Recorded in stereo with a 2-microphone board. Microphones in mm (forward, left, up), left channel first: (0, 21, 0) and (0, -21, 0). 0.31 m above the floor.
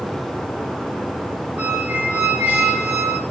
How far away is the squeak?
About 1.7 m.